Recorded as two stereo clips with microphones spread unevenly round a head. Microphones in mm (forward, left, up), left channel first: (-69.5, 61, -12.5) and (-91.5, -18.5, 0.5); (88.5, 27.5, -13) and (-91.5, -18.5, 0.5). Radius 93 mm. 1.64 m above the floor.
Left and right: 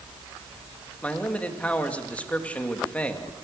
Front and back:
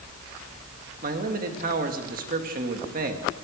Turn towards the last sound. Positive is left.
turn(degrees=150)